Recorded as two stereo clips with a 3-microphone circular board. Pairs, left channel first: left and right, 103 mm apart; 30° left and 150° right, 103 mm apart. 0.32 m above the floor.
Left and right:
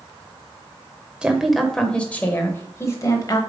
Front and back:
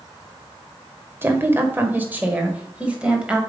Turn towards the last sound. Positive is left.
turn(degrees=135)